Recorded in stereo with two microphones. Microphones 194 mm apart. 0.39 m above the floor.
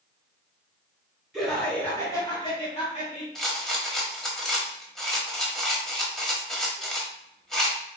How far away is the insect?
I don't hear an insect.